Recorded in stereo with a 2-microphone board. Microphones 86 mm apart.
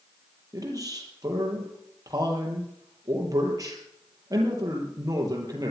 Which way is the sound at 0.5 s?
45° right (ahead or behind).